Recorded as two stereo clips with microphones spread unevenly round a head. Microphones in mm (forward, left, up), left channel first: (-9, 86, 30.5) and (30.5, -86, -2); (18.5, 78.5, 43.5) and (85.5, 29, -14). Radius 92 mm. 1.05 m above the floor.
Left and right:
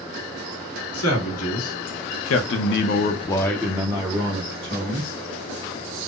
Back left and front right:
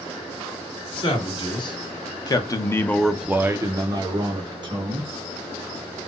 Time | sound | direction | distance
0.9 | a man speaking | 115° left | 1.5 m